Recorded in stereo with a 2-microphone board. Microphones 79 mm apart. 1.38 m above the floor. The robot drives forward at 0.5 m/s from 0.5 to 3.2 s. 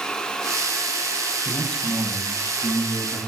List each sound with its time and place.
1.4 s a man speaking: 10° left (ahead or behind), 9 m; by 3.2 s 5° left (ahead or behind), 10 m